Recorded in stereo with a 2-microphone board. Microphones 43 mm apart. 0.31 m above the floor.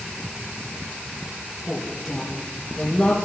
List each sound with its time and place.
1.7 s a woman speaking: 5° left (ahead or behind), 4.5 m